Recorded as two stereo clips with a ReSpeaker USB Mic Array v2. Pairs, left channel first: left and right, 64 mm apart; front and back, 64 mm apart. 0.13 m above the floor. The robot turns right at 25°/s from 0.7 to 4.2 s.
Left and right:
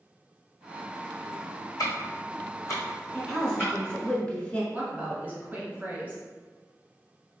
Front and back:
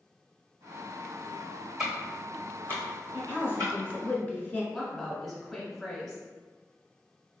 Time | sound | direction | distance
1.8 | ticking | 100° left | 1.9 m
3.1 | a woman speaking | 10° left | 1.2 m
4.7 | a woman speaking | 80° right | 1.3 m